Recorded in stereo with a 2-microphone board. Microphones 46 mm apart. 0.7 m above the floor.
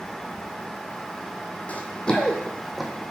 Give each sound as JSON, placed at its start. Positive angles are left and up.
{"t": 1.7, "sound": "running footsteps", "side_deg": 30, "distance_m": 1.6}